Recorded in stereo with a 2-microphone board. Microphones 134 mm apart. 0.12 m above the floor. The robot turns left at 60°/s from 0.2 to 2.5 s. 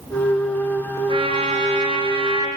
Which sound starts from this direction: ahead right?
A trumpet, at 1.1 s.